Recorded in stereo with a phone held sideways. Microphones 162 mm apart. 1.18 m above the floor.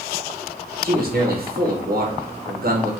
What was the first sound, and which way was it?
A man speaking, 60° right (ahead or behind).